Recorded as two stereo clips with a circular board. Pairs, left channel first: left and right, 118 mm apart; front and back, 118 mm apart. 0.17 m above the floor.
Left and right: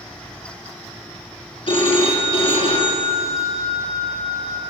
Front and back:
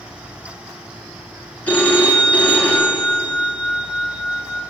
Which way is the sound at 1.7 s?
75° left.